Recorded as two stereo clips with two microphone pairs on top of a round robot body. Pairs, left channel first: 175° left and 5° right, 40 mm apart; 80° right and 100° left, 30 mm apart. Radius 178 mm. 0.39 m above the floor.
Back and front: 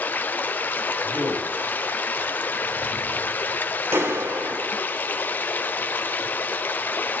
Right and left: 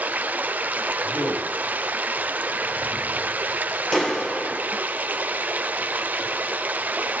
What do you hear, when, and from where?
0.0 s running water: 135° left, 0.7 m
1.0 s a man speaking: 50° right, 8.5 m
3.9 s a clap: 15° right, 5 m